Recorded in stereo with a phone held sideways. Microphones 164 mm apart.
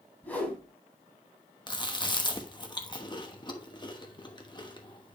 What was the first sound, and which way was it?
A whoosh, 10° left (ahead or behind).